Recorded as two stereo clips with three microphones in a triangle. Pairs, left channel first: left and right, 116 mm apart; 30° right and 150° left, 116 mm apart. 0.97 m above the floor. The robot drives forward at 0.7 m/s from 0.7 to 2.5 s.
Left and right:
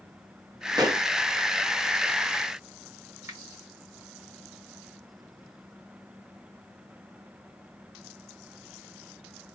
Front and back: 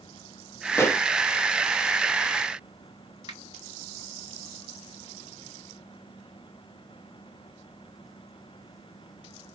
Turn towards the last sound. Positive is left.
turn(degrees=-155)